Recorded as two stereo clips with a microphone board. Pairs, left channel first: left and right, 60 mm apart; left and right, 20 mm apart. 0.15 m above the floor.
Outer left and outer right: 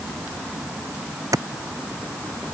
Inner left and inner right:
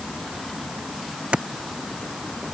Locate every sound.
1.3 s a clap: 70° right (ahead or behind)